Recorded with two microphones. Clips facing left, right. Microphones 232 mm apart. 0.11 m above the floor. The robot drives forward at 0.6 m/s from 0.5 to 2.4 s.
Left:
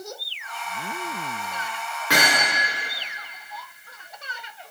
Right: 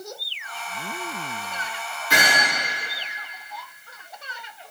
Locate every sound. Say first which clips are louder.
2.1 s hammering: left 1 dB; 75° left (ahead or behind), 5 m; by 2.4 s 70° left (ahead or behind), 5 m